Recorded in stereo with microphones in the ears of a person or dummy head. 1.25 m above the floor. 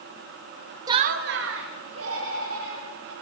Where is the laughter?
20° right (ahead or behind), 0.5 m; by 3.1 s 85° right, 3.5 m.